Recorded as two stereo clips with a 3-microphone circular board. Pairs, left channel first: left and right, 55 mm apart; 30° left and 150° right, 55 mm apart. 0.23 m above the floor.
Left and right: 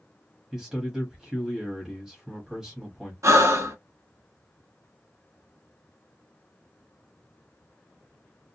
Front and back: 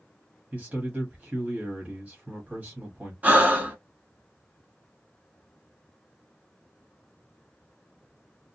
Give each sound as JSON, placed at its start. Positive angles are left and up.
{"t": 0.5, "sound": "a man speaking", "azimuth_deg": -150, "distance_m": 1.2}
{"t": 3.2, "sound": "breathing", "azimuth_deg": -90, "distance_m": 0.9}